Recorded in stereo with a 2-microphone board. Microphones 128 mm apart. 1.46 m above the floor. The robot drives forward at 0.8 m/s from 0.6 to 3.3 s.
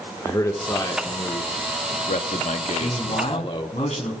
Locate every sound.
0.2 s a man speaking: 30° left (ahead or behind), 1.5 m; by 3.8 s 40° left (ahead or behind), 1.1 m
2.8 s a man speaking: 70° left (ahead or behind), 3.5 m; by 4.1 s 65° left (ahead or behind), 3.5 m